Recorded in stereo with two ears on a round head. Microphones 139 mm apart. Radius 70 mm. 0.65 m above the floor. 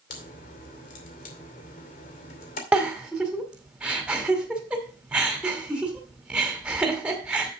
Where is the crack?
60° left (ahead or behind), 2.5 m.